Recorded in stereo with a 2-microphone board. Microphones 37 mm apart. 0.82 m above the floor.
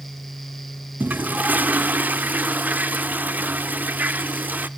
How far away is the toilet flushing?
About 0.7 m.